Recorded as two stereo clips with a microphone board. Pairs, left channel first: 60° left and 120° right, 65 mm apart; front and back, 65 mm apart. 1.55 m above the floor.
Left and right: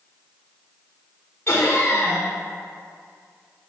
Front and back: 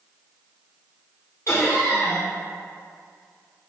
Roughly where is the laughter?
Ahead.